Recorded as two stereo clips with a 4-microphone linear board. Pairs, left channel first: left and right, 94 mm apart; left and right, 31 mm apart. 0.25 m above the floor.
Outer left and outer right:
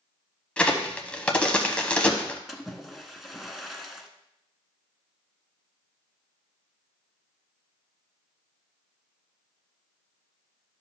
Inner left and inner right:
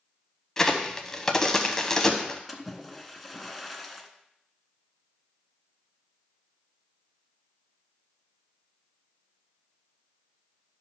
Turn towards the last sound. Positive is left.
turn(degrees=0)  # may be behind; listen again after turning